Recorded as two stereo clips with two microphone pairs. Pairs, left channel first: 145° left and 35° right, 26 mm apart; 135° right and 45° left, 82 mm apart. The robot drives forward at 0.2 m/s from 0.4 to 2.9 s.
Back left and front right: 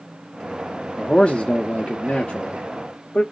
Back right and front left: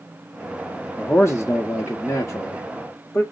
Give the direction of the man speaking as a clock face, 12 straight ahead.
6 o'clock.